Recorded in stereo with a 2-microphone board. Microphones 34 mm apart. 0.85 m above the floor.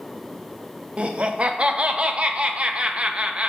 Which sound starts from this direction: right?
Laughter, at 1.0 s.